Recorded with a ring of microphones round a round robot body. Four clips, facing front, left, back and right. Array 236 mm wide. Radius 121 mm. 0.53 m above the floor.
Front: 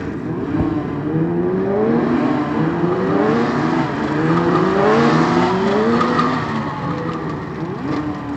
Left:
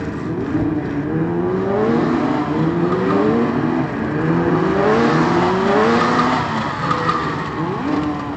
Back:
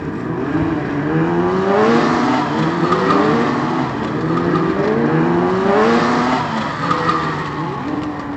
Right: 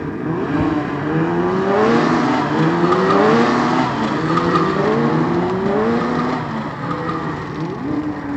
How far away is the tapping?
About 2.5 m.